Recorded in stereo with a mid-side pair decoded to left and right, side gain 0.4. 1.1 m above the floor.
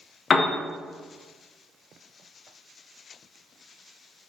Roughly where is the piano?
Ahead left.